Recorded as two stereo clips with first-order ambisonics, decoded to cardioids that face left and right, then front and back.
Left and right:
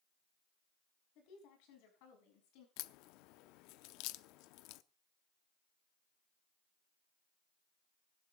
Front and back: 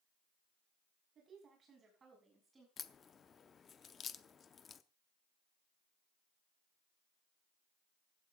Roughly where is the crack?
Ahead left.